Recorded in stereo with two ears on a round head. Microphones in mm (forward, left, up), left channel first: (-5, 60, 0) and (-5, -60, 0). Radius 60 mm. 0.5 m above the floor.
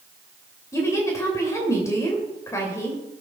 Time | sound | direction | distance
0.7 | a woman speaking | 25° left (ahead or behind) | 2.5 m